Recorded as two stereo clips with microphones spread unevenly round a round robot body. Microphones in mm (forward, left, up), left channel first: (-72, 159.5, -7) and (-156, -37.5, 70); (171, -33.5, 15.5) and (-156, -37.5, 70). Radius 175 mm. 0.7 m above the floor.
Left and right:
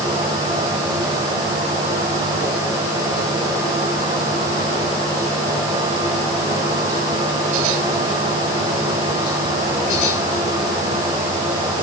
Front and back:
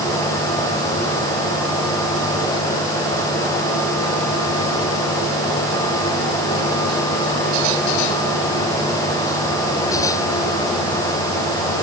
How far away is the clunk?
I don't hear a clunk.